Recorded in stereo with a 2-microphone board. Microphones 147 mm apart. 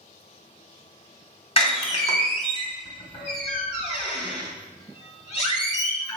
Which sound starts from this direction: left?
A door slam, at 1.6 s.